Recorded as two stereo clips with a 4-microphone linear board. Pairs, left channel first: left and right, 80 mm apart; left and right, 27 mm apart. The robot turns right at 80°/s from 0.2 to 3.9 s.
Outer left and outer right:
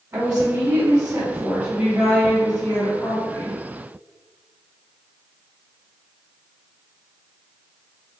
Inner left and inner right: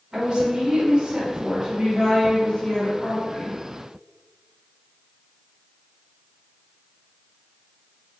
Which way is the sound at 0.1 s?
130° right.